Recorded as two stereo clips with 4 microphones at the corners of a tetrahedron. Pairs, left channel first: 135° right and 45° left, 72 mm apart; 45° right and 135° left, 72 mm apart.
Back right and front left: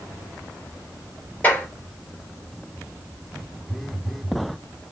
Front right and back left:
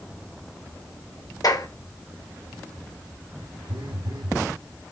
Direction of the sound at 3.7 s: 135° left.